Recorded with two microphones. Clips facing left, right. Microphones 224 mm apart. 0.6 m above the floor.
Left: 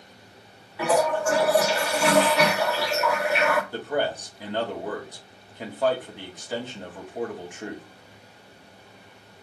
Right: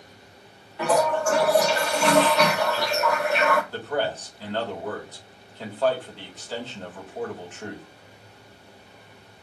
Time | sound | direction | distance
0.8 | a toilet flushing | 5° left (ahead or behind) | 0.8 m
3.7 | a man speaking | 15° left (ahead or behind) | 1.3 m